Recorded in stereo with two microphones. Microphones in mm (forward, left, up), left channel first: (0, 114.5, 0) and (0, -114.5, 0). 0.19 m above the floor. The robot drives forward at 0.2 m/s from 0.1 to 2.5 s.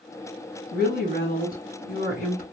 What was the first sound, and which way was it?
A woman speaking, 40° left (ahead or behind).